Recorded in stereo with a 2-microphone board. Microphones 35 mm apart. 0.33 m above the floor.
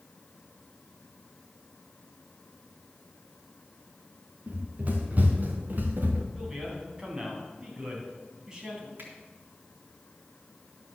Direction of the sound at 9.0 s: 70° right (ahead or behind).